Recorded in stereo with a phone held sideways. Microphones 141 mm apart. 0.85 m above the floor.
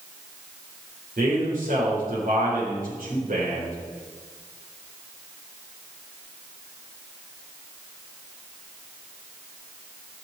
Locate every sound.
1.2 s a man speaking: 75° right (ahead or behind), 4 m